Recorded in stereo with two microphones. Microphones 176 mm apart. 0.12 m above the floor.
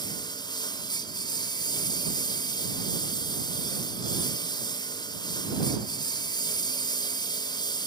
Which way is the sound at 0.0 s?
25° left (ahead or behind).